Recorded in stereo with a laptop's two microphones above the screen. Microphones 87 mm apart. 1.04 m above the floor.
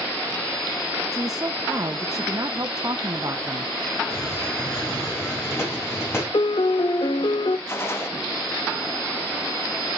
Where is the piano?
60° left (ahead or behind), 0.6 m.